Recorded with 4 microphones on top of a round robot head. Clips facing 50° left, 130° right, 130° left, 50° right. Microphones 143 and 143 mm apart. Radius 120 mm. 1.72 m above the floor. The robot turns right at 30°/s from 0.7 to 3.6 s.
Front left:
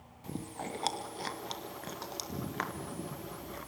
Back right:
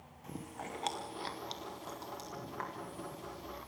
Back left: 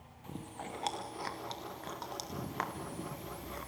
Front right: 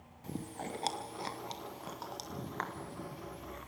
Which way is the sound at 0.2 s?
5° right.